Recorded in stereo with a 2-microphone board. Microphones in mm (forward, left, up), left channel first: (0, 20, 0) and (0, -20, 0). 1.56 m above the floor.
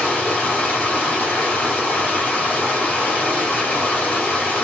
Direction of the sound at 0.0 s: 40° left (ahead or behind).